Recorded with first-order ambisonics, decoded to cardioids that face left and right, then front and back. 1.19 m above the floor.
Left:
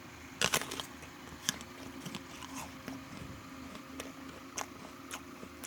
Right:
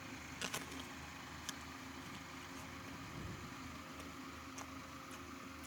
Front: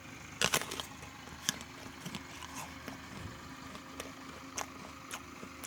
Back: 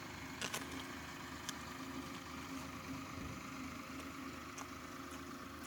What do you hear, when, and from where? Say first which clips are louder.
0.4 s chewing: left 13 dB, front 12 dB; 45° left